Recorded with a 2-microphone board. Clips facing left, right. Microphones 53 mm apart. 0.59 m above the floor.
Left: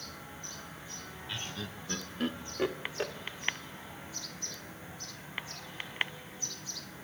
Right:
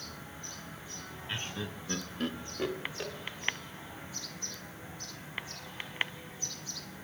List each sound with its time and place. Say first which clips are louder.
1.3 s laughter: right 3 dB; 25° right (ahead or behind), 0.8 m; by 3.1 s 30° left (ahead or behind), 1.3 m